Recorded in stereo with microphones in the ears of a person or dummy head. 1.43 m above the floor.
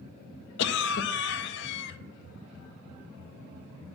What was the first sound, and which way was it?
A cough, 50° left (ahead or behind).